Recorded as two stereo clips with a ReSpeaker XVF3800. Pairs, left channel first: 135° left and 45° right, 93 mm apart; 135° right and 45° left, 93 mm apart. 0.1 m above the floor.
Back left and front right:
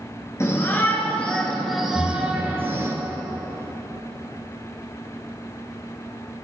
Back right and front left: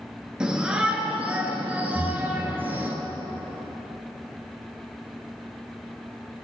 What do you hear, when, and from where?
0.4 s a shout: 120° left, 1.3 m; by 2.9 s 10° right, 1.4 m
1.9 s breathing: 165° left, 1.5 m